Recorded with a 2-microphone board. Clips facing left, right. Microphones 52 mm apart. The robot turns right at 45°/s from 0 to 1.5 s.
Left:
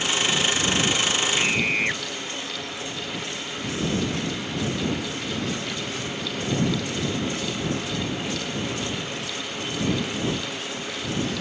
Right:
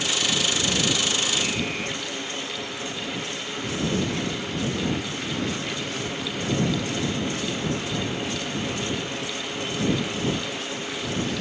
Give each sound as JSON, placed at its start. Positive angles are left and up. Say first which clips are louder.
{"t": 1.3, "sound": "a scream", "louder": "left 4 dB", "side_deg": 45}